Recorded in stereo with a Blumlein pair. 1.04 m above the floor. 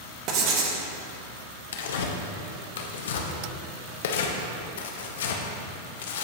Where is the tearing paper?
60° left, 0.8 m.